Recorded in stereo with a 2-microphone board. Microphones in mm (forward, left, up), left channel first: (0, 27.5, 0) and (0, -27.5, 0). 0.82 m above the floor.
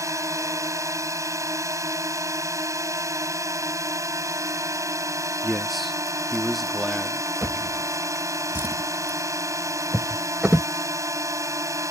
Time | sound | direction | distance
0.0 | a drone | 75° right (ahead or behind) | ?
5.4 | a man speaking | centre (ahead or behind) | ?
7.4 | a drawer | 30° right (ahead or behind) | ?